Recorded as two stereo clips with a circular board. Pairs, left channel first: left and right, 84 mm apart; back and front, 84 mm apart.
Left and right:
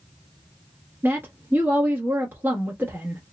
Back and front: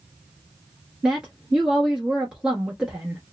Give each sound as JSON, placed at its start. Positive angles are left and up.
{"t": 1.0, "sound": "a woman speaking", "azimuth_deg": -65, "distance_m": 1.2}